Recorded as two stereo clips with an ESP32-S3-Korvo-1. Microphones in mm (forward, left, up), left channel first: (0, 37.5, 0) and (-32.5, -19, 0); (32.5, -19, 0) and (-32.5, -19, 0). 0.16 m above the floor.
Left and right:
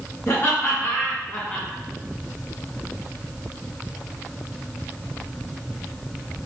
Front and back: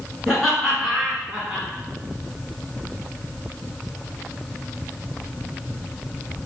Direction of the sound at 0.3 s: 85° left.